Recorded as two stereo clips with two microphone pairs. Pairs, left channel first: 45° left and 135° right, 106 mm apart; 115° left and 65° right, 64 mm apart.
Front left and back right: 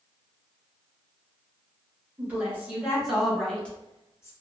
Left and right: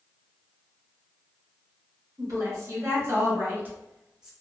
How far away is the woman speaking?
About 1.3 m.